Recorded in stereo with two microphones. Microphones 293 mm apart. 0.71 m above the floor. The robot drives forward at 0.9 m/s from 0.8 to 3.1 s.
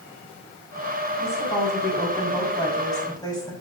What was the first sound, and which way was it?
A woman speaking, 10° left (ahead or behind).